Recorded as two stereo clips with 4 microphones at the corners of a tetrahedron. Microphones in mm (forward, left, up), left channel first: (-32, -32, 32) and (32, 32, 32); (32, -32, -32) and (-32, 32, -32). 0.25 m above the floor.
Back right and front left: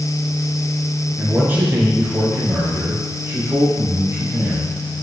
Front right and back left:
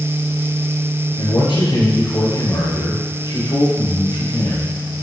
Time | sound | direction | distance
1.2 | a man speaking | 25° right | 3 m